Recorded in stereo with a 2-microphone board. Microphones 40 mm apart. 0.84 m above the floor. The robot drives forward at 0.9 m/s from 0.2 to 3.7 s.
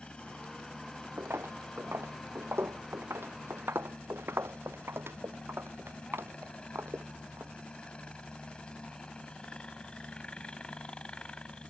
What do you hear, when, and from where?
0.0 s a helicopter: 25° left (ahead or behind); by 11.7 s 20° left (ahead or behind)
1.2 s footsteps: 70° right (ahead or behind)